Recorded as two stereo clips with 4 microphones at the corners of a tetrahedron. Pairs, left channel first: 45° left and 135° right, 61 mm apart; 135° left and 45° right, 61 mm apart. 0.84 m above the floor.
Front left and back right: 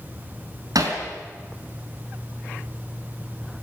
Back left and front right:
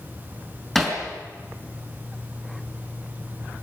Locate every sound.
0.8 s hammering: 135° right, 4.5 m